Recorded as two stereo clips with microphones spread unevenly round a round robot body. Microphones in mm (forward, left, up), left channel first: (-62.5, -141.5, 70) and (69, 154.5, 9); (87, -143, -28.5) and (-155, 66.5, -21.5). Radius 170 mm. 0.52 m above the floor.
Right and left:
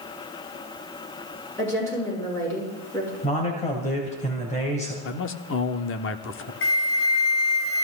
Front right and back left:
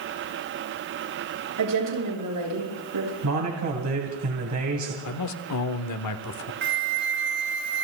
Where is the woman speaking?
165° left, 7.5 m.